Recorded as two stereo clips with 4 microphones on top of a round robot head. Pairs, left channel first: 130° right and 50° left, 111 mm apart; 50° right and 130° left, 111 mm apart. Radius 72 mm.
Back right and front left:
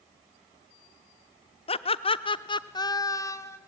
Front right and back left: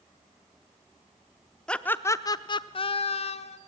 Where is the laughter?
135° right, 0.7 m; by 3.6 s 65° right, 1.2 m.